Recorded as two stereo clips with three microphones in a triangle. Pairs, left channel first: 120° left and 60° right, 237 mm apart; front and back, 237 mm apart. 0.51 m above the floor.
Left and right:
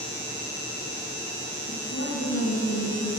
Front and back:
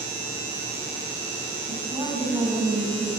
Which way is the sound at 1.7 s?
110° left.